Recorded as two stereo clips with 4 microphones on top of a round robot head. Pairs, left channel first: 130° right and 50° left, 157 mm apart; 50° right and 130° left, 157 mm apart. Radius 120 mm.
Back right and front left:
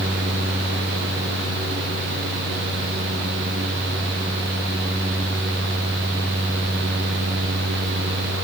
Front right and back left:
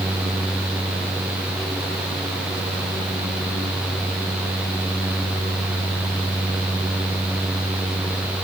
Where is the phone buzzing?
No phone buzzing in this recording.